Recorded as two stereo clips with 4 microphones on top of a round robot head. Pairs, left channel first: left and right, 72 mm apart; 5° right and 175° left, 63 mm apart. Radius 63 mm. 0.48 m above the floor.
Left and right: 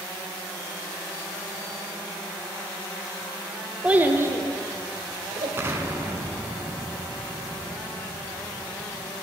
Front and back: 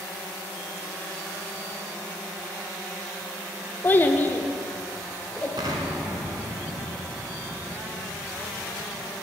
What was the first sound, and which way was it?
A child speaking, 30° right.